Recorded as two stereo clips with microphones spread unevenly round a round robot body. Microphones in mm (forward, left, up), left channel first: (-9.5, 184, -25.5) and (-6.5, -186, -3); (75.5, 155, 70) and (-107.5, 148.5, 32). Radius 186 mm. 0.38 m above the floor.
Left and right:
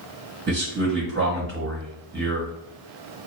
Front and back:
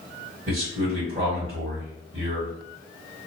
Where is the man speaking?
145° right, 1.4 m.